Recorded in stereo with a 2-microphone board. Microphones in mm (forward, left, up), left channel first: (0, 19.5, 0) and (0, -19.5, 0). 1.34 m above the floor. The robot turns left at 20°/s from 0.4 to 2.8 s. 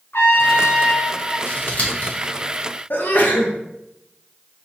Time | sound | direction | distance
0.1 | a trumpet | 85° left | 0.7 m
1.5 | scissors | 45° left (ahead or behind) | 0.9 m
2.9 | a sneeze | 55° left (ahead or behind) | 0.8 m